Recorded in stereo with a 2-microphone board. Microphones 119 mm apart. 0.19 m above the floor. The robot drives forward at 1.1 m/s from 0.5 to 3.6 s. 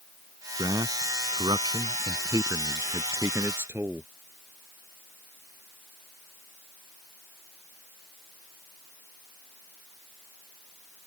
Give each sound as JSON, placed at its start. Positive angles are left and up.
{"t": 0.6, "sound": "a man speaking", "side_deg": -35}